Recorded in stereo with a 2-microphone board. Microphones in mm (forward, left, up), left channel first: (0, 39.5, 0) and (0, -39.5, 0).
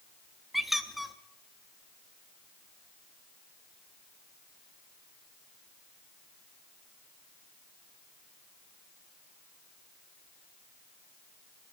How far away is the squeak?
About 0.7 m.